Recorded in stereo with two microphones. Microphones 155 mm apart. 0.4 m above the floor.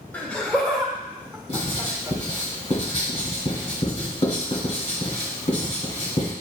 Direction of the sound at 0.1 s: 10° left (ahead or behind).